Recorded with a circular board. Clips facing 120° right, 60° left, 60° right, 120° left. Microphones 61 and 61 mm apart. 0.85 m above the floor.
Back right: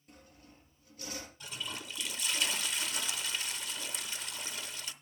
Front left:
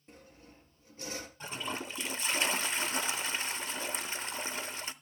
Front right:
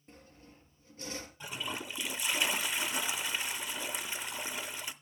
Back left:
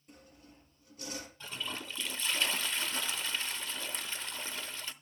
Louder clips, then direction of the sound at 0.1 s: Front left 2 dB, front right 1 dB; 5° right.